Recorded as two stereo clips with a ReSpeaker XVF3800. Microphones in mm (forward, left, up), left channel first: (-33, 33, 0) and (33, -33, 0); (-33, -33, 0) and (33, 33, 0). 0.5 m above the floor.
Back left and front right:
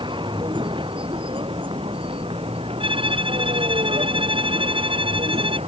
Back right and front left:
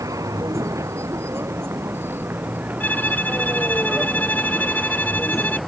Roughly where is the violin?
Ahead right.